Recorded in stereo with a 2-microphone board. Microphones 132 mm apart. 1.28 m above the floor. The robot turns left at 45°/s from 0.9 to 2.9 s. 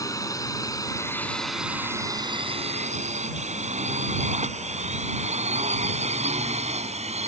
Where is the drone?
25° left (ahead or behind); by 7.3 s 55° right (ahead or behind).